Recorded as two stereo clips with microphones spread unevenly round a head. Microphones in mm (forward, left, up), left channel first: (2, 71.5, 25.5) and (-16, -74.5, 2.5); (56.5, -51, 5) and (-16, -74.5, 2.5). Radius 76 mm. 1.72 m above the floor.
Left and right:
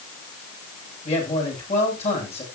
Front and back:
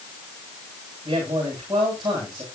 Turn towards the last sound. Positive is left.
turn(degrees=130)